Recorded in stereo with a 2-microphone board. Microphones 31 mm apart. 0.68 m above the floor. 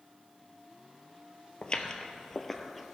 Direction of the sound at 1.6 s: 35° left (ahead or behind).